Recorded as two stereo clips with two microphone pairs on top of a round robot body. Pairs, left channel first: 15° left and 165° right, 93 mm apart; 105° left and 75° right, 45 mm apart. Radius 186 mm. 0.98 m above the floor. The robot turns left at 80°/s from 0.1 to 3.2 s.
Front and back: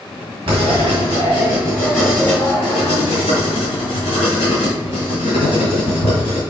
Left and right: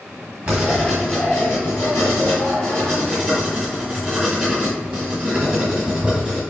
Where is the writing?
130° right, 1.3 m; by 6.4 s 10° left, 1.3 m.